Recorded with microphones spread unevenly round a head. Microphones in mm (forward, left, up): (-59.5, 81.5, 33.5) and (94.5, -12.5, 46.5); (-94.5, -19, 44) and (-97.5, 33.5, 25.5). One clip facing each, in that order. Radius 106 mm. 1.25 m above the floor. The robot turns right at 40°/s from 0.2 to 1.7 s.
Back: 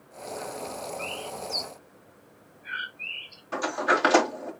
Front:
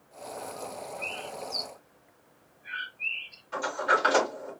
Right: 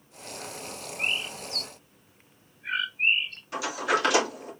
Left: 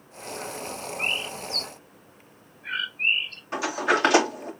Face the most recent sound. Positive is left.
turn(degrees=135)